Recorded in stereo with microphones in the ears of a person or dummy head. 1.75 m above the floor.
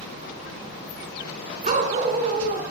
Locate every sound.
1.6 s a dog barking: 40° right (ahead or behind), 4 m